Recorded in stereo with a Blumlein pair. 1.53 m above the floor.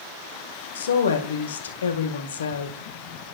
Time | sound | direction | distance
0.8 | a woman speaking | 65° left | 1.6 m